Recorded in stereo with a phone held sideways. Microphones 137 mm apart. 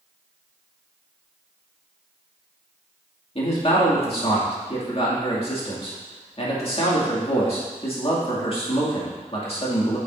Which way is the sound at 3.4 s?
45° left (ahead or behind).